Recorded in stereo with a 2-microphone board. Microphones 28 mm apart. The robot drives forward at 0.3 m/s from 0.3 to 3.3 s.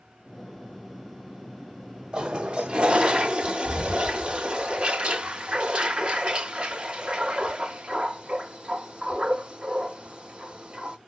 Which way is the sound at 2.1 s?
40° right (ahead or behind).